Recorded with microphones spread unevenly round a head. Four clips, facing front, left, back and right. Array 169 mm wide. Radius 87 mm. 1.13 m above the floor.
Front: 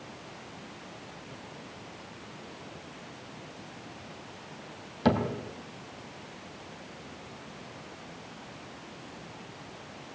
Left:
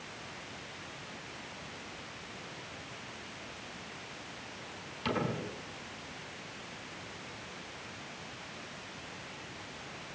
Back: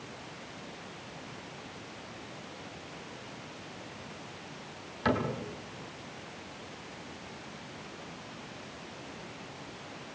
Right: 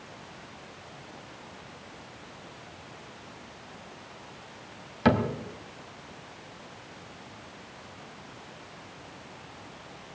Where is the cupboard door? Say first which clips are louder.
Right 10 dB, front 4 dB; 40° right, 3 m.